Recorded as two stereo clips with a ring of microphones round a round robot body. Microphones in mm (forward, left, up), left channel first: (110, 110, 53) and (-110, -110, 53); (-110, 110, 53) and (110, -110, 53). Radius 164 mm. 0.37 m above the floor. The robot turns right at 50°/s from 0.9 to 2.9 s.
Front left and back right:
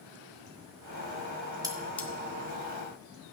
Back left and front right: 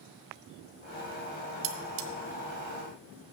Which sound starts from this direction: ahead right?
Cutlery clinking, at 1.6 s.